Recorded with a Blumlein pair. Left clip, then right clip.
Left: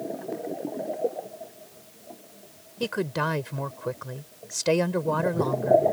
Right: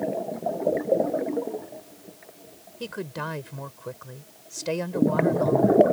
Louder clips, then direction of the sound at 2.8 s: Left 6 dB; 15° left.